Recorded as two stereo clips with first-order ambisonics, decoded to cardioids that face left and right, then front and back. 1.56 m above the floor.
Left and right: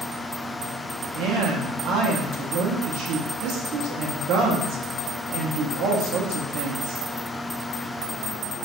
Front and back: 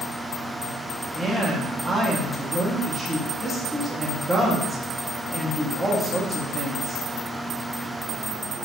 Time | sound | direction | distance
1.1 | a woman speaking | 90° right | 0.8 m